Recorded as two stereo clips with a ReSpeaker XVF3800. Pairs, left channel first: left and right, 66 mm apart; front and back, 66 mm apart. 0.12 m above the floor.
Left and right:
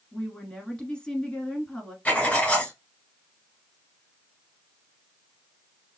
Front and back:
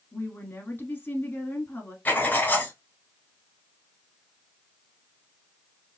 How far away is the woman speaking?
About 1.3 m.